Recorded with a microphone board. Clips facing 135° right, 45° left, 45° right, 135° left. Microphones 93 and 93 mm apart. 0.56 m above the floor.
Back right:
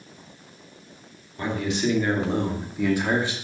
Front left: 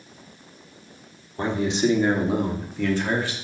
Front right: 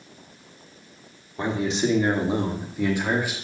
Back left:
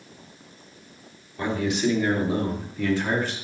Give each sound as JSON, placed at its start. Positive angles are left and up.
{"t": 1.4, "sound": "a man speaking", "azimuth_deg": 5, "distance_m": 1.4}